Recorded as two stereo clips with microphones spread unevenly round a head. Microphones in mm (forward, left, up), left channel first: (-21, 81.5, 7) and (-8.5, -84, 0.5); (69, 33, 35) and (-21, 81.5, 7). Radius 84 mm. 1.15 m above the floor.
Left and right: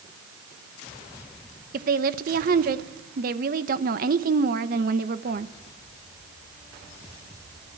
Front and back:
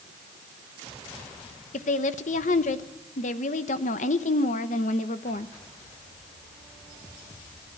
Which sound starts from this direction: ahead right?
A woman speaking, at 1.7 s.